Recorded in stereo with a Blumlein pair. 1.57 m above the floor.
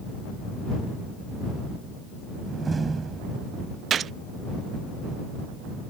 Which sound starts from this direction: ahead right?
A gunshot, at 3.9 s.